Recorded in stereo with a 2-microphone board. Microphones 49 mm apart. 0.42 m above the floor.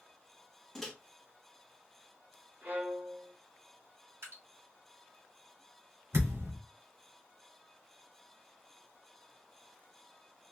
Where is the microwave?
5° left (ahead or behind), 0.8 m.